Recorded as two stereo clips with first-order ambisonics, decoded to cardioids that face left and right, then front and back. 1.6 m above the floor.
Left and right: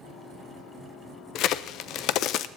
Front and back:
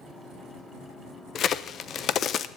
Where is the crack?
55° left, 0.5 m.